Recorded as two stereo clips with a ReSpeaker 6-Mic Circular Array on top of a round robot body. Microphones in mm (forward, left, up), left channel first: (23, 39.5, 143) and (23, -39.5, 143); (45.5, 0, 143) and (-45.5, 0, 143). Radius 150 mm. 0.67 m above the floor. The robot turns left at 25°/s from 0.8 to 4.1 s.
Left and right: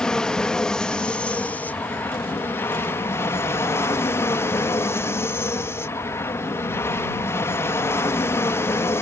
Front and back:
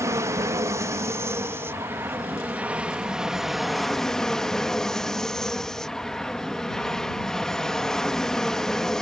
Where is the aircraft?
165° left; by 9.0 s 80° left.